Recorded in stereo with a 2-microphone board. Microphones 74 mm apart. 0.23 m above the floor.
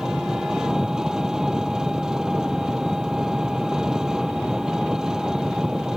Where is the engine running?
10° right (ahead or behind).